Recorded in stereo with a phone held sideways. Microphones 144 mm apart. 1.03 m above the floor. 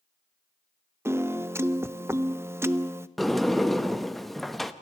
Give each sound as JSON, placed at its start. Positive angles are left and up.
{"t": 1.1, "sound": "a piano", "side_deg": -20, "distance_m": 0.5}
{"t": 3.2, "sound": "a sliding door", "side_deg": 0, "distance_m": 0.7}